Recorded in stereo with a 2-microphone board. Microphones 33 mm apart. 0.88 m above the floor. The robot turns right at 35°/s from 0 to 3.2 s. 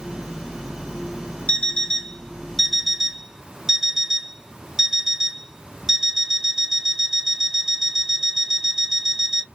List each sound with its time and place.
1.5 s an alarm clock: 130° left, 1.4 m; by 9.4 s 170° right, 1.4 m